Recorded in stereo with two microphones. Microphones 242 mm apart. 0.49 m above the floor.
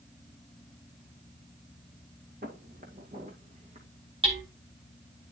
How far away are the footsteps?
About 2.5 m.